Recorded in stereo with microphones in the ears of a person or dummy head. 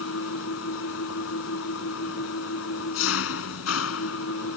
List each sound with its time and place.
0.0 s an engine running: 85° left